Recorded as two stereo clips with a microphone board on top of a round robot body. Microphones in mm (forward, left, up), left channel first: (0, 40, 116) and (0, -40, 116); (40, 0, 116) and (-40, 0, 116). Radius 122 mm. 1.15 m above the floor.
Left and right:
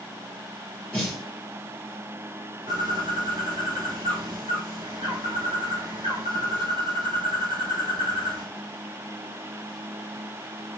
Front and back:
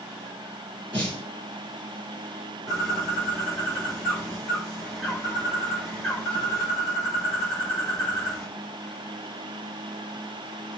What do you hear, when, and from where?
0.9 s a snare drum: 165° left, 3 m
2.7 s a bird: 85° right, 0.6 m